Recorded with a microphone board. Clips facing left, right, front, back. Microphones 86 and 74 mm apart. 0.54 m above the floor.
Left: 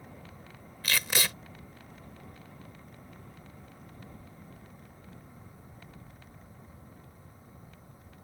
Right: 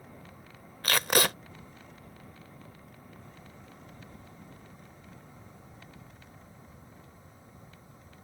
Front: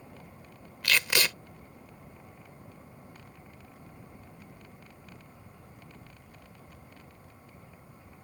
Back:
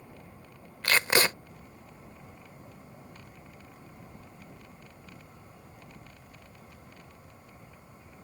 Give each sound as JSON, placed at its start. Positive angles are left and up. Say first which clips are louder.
{"t": 0.8, "sound": "tape being pulled", "louder": "right 5 dB, back 3 dB", "azimuth_deg": -125}